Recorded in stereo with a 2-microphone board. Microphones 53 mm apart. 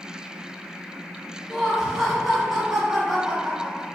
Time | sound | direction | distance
1.5 | laughter | 5° right (ahead or behind) | 1.4 m